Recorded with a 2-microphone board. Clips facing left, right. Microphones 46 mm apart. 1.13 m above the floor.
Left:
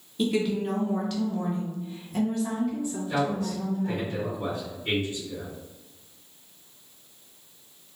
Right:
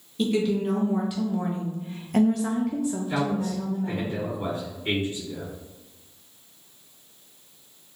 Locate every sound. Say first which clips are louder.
0.2 s a woman speaking: right 2 dB; centre (ahead or behind), 1.3 m; by 4.1 s 50° right (ahead or behind), 1.3 m
3.1 s a man speaking: right 1 dB; 30° right (ahead or behind), 1.9 m